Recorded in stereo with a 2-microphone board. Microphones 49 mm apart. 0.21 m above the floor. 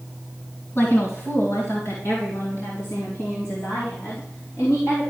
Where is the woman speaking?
55° left (ahead or behind), 2.5 m.